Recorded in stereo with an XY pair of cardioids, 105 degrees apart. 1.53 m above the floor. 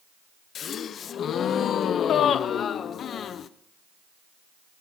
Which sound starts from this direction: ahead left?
A gasp, at 0.6 s.